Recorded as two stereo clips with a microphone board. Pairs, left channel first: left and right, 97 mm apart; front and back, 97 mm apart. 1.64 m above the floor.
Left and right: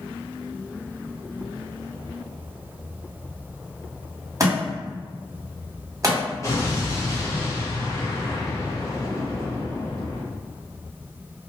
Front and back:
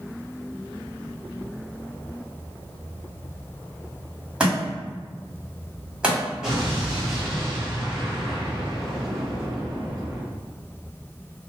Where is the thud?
110° right, 1.7 m.